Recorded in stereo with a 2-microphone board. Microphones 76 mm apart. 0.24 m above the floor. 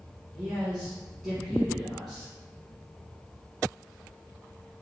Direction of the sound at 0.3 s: 5° right (ahead or behind).